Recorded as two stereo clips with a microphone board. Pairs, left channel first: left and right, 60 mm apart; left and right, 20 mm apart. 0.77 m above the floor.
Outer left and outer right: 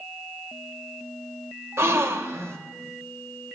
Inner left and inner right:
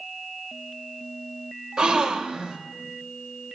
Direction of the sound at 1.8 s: 45° right (ahead or behind).